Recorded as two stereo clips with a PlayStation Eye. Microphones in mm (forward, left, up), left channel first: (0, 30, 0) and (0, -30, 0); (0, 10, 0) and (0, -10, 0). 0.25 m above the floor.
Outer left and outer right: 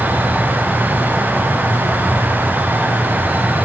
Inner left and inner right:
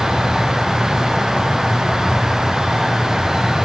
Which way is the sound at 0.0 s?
30° right (ahead or behind).